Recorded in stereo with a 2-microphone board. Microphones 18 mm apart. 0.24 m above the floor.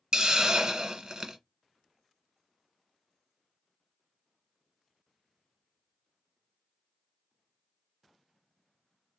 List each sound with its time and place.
0.1 s a hiss: 55° right (ahead or behind), 0.7 m